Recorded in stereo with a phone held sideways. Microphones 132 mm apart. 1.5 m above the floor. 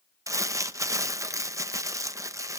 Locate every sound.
0.3 s crumpling: 25° right (ahead or behind), 0.7 m